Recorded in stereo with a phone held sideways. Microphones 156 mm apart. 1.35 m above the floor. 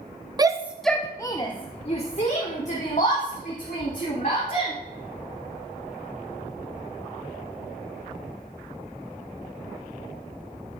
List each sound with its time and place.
0.4 s a shout: 25° right (ahead or behind), 0.5 m; by 4.7 s 60° left (ahead or behind), 2.5 m